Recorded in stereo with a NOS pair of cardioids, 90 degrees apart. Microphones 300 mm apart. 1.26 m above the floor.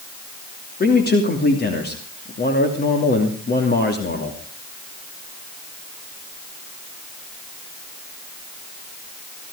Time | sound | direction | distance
0.8 | a man speaking | 30° left | 3 m